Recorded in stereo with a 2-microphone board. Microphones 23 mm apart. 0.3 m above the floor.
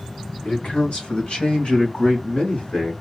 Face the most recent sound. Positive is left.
turn(degrees=60)  # may be behind; listen again after turning